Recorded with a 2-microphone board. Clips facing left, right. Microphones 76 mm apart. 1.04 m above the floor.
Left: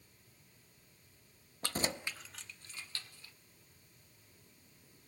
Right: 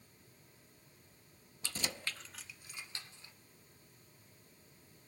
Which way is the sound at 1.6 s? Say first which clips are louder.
Left 5 dB; 50° left (ahead or behind).